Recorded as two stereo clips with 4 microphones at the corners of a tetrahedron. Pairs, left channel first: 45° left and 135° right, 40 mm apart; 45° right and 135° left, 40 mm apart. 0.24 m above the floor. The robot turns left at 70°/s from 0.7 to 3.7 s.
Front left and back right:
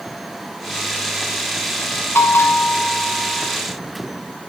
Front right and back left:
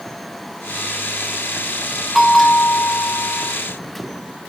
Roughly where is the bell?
Ahead left.